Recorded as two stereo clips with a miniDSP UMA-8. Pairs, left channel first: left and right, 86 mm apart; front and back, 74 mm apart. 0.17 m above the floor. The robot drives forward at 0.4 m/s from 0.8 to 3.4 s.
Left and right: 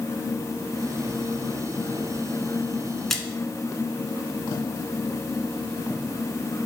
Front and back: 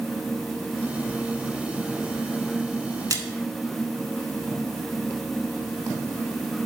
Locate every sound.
3.1 s a splash: 175° left, 1.0 m